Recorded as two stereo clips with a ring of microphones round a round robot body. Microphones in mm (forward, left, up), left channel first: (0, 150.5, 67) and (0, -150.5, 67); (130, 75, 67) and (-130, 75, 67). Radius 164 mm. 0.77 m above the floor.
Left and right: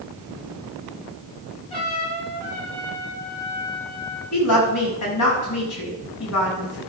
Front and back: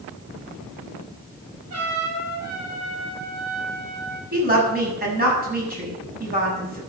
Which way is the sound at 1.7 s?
160° left.